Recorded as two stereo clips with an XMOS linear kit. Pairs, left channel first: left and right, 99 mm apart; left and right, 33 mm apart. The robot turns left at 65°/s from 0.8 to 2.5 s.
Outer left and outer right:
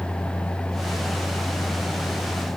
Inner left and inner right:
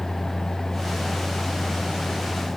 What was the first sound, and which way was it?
Only background noise.